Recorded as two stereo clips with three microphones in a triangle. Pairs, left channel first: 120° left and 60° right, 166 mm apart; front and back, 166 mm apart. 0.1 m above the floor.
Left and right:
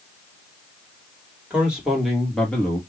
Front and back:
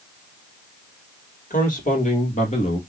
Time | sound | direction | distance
1.5 | a man speaking | 20° left | 2.5 m